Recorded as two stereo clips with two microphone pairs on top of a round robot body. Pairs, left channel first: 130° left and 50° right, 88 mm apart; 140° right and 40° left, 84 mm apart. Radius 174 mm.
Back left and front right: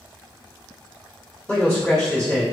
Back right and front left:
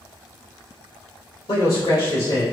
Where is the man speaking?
160° right, 2.0 m.